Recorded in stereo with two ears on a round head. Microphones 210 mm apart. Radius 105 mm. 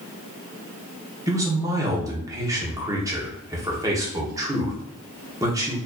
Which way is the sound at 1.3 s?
15° right (ahead or behind).